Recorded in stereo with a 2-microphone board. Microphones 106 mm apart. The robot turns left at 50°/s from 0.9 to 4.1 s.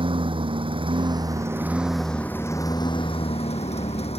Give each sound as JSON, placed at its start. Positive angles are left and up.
{"t": 0.0, "sound": "a lawn mower", "azimuth_deg": -125}